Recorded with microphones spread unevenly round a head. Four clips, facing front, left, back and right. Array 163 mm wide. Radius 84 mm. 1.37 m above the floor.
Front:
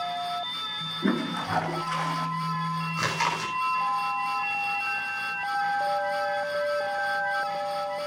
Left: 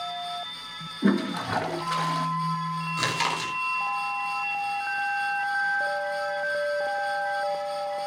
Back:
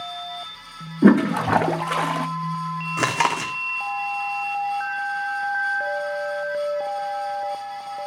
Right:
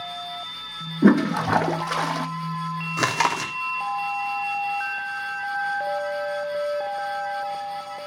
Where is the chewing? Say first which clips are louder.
Right 7 dB, back 8 dB; 145° right, 3 m.